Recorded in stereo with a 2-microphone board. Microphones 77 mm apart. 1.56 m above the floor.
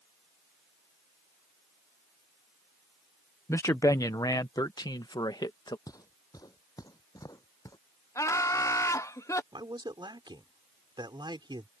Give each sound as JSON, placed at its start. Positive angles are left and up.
{"t": 3.5, "sound": "a man speaking", "side_deg": 35}
{"t": 5.9, "sound": "footsteps", "side_deg": 50}
{"t": 8.2, "sound": "laughter", "side_deg": 40}
{"t": 9.5, "sound": "a man speaking", "side_deg": -80}